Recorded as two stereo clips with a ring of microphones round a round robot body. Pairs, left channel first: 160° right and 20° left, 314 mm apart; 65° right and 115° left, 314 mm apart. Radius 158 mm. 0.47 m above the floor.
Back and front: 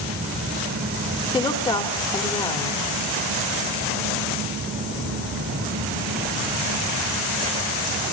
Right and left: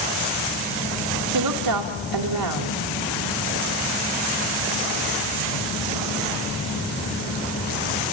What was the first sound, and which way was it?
A woman speaking, 120° left.